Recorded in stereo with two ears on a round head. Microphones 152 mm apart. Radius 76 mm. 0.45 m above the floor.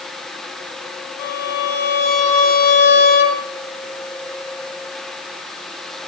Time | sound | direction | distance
1.2 | a violin | 55° left (ahead or behind) | 2.5 m